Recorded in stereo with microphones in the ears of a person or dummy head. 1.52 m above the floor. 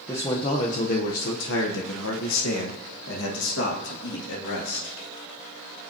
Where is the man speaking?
15° left (ahead or behind), 1.1 m; by 5.0 s 65° left (ahead or behind), 3 m.